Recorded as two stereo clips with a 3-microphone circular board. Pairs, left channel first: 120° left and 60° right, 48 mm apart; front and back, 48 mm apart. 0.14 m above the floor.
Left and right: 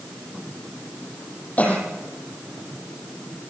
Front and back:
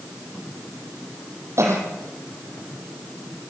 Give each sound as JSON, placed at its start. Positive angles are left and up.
{"t": 1.6, "sound": "a cough", "azimuth_deg": 180, "distance_m": 6.5}